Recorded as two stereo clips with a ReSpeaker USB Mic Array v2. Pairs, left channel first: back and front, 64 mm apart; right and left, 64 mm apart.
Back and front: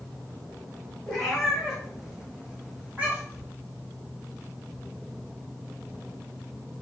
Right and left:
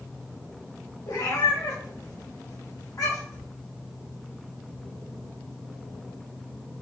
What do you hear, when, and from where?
1.1 s a cat meowing: 95° right, 2.5 m; by 3.5 s 60° right, 3 m